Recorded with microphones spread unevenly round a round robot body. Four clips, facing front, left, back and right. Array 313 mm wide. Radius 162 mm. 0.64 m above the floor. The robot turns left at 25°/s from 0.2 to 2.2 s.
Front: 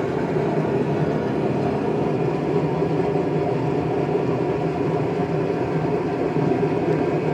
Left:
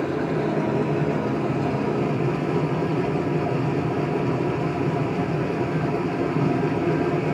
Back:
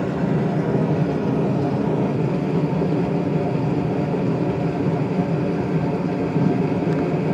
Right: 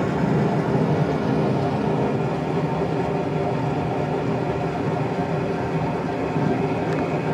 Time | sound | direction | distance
0.0 | running water | 130° right | 2 m